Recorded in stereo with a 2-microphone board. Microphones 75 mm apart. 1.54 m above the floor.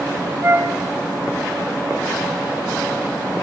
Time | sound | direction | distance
0.4 | a flute | 35° right (ahead or behind) | 1.6 m